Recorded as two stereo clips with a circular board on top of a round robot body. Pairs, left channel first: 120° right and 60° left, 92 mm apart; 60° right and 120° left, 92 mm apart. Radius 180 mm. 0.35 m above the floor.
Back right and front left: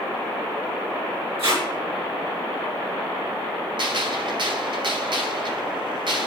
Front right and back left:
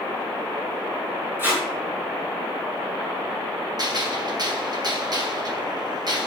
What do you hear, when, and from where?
1.4 s tape being pulled: 55° left, 6.5 m
3.8 s a gunshot: 85° left, 2.5 m